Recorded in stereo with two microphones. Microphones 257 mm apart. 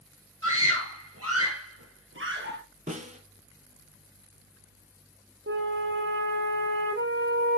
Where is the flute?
50° right (ahead or behind), 1.1 m.